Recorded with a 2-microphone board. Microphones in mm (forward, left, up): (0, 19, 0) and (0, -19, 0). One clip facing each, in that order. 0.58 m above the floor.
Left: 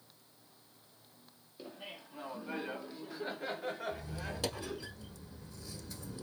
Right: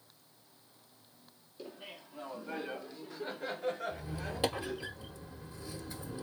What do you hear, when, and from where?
1.6 s laughter: 10° left (ahead or behind), 1.0 m; by 4.9 s 5° left (ahead or behind), 2.0 m
3.9 s a squeak: 25° right (ahead or behind), 0.9 m